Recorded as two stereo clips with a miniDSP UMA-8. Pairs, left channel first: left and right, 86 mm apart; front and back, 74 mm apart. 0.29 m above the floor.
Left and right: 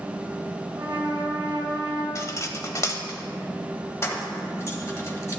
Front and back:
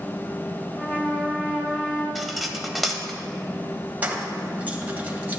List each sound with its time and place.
0.7 s a trumpet: 70° right, 3 m
2.1 s cutlery clinking: 90° left, 0.8 m
4.0 s keys jangling: 125° left, 1.2 m